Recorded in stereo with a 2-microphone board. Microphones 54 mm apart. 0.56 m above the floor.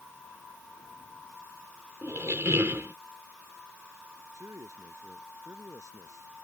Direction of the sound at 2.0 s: 50° right (ahead or behind).